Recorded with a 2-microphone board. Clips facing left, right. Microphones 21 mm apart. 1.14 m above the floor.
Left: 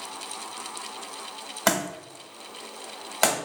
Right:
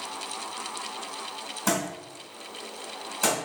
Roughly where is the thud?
Left.